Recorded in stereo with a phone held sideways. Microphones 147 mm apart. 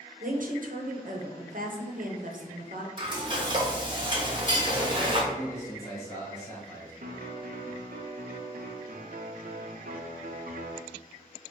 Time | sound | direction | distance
0.2 | a woman speaking | 70° right (ahead or behind) | 0.8 m
3.0 | frying | 35° right (ahead or behind) | 1.2 m
5.3 | a man speaking | 20° left (ahead or behind) | 1.3 m
7.0 | a piano | 85° right | 0.5 m